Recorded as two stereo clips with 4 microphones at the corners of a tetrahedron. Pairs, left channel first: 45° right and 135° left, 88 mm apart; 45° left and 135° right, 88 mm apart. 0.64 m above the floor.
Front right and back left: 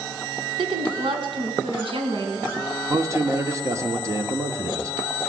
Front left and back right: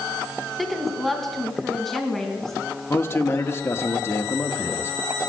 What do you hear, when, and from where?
0.6 s a woman speaking: 135° left, 5 m; by 2.8 s 130° left, 6 m
2.9 s a man speaking: 95° left, 1.6 m